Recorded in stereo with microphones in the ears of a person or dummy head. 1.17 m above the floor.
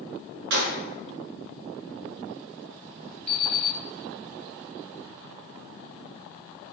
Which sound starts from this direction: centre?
An alarm clock, at 3.3 s.